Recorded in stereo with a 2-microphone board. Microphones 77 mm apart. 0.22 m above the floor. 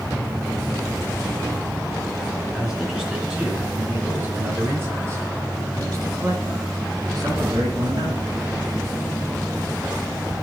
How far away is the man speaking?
About 3 m.